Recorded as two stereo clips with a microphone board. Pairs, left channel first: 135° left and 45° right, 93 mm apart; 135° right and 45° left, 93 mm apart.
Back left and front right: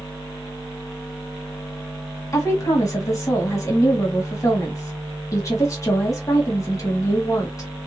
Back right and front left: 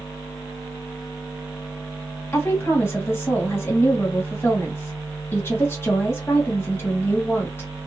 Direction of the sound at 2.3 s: 170° left.